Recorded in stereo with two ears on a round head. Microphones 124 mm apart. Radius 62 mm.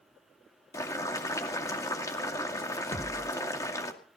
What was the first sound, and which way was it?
Boiling, 25° left (ahead or behind).